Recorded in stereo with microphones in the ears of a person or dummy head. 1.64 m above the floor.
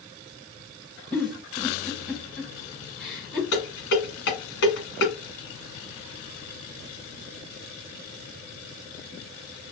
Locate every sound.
1.1 s a giggle: 5° left (ahead or behind), 1.3 m
3.5 s dishes clattering: 60° left (ahead or behind), 1.4 m